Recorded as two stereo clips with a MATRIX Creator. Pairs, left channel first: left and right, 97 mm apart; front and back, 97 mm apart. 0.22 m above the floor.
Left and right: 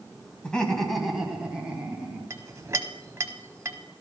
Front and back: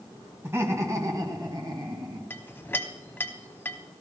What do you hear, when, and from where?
0.4 s laughter: 155° left, 1.5 m; by 2.2 s 160° right, 2 m
2.3 s a clink: 55° right, 0.8 m